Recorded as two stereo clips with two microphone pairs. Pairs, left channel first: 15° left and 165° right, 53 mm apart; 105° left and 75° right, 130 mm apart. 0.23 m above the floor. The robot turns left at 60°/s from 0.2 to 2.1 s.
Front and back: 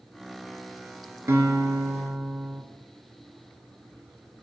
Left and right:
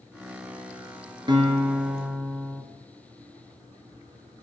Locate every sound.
1.3 s a guitar: 130° right, 2 m; by 2.6 s straight behind, 2 m